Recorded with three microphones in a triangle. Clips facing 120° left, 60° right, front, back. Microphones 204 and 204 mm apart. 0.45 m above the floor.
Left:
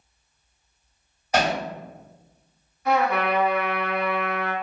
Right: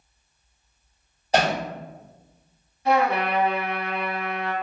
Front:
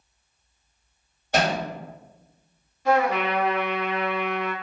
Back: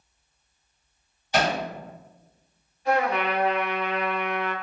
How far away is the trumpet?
About 0.7 m.